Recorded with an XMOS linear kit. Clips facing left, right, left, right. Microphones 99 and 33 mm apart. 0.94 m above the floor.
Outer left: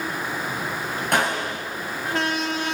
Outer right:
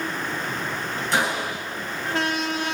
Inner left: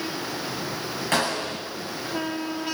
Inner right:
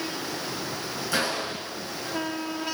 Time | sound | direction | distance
1.1 | a gunshot | 60° left (ahead or behind) | 8 m